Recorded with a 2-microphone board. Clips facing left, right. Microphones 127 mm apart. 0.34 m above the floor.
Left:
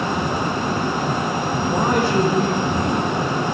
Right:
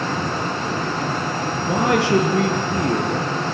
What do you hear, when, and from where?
1.7 s a man speaking: 80° right, 9 m; by 3.4 s 75° right (ahead or behind), 7 m